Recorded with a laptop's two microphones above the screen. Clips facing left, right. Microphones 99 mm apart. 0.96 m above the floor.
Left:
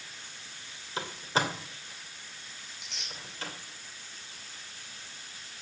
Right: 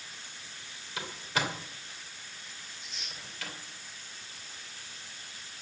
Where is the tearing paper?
85° left, 5.5 m.